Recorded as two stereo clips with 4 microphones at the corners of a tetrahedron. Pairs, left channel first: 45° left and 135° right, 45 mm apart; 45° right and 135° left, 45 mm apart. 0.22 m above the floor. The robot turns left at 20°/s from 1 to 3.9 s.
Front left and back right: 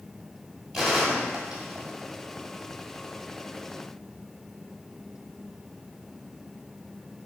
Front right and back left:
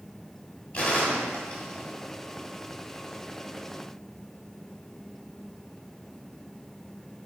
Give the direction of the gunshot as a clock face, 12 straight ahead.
2 o'clock.